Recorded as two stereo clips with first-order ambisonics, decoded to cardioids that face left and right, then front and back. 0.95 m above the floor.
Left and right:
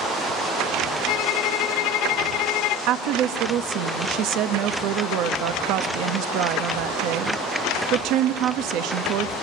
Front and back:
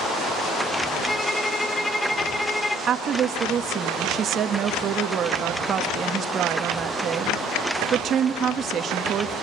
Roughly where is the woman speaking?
Behind right.